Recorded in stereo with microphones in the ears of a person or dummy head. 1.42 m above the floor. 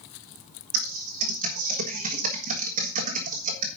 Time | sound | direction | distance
0.7 | typing on a keyboard | 40° right (ahead or behind) | 1.6 m